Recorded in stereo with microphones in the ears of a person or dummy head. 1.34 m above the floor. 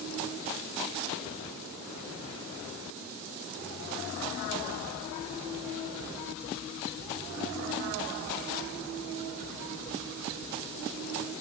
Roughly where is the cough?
I don't hear a cough.